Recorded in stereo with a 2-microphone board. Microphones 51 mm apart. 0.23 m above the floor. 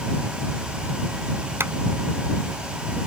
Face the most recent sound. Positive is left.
turn(degrees=-55)  # may be behind; listen again after turning